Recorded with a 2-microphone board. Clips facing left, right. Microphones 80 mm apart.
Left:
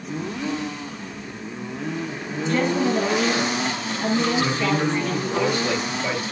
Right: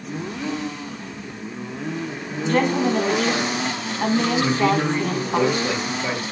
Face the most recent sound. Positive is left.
turn(degrees=-20)  # may be behind; listen again after turning